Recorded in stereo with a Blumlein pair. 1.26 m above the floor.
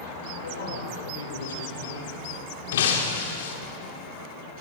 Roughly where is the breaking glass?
Ahead left.